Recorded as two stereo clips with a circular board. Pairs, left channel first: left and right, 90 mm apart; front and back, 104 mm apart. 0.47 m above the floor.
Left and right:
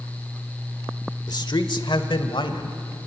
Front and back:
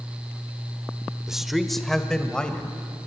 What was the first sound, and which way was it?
A man speaking, 95° left.